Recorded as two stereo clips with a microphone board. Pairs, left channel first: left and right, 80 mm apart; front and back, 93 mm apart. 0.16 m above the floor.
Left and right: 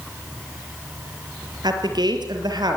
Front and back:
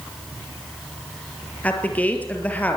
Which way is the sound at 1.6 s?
70° right.